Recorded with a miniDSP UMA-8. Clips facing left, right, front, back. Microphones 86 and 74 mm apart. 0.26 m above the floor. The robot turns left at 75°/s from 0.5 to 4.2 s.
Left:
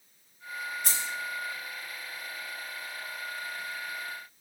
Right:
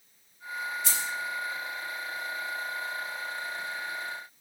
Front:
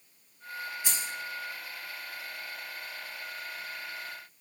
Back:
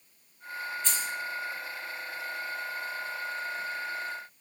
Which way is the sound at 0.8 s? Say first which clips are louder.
Right 2 dB, back 3 dB; 80° left.